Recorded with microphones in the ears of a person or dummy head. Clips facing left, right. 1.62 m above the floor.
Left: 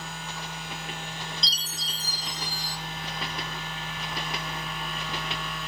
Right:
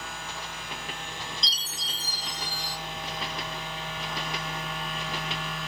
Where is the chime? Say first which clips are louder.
Left 1 dB; 30° left (ahead or behind), 1.0 m.